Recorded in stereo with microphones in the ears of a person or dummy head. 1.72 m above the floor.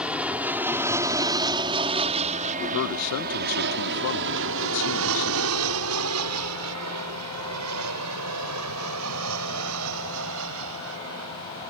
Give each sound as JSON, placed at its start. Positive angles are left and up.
{"t": 0.0, "sound": "an aircraft", "side_deg": -5}
{"t": 2.6, "sound": "a man speaking", "side_deg": 70}